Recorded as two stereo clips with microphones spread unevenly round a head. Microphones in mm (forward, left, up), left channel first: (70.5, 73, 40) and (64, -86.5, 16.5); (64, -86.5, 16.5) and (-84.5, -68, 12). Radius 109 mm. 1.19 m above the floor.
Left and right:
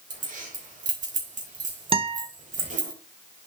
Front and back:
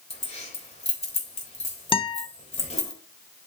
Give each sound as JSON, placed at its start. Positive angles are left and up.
{"t": 0.1, "sound": "keys jangling", "azimuth_deg": -55, "distance_m": 3.5}
{"t": 1.9, "sound": "a guitar", "azimuth_deg": -40, "distance_m": 1.0}